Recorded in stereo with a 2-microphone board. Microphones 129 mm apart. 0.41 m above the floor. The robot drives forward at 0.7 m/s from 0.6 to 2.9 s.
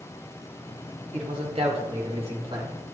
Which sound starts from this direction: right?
A man speaking, at 1.1 s.